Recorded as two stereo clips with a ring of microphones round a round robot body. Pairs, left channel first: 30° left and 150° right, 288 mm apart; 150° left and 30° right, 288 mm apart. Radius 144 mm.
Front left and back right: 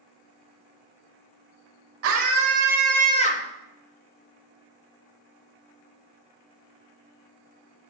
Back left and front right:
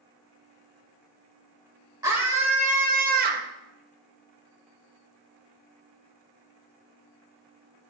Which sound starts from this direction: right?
A scream, at 2.0 s.